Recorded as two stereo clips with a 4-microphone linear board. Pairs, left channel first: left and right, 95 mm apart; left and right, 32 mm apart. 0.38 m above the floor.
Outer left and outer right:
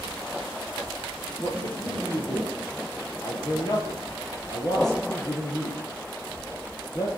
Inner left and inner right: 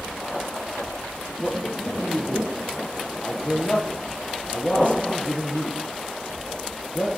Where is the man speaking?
40° left (ahead or behind), 9 m.